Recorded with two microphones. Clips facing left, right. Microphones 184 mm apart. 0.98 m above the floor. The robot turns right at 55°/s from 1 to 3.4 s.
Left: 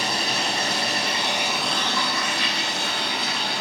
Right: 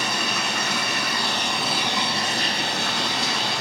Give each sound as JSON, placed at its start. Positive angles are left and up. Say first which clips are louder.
{"t": 0.0, "sound": "running water", "louder": "left 1 dB", "azimuth_deg": 150, "distance_m": 2.0}